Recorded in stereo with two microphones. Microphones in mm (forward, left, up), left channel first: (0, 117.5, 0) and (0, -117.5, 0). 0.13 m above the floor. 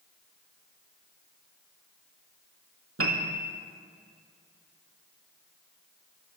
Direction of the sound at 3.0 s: 70° right (ahead or behind).